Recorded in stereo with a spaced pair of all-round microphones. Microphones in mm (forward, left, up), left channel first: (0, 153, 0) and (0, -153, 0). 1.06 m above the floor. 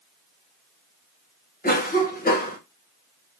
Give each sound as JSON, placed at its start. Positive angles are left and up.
{"t": 1.6, "sound": "a cough", "side_deg": 30, "distance_m": 0.6}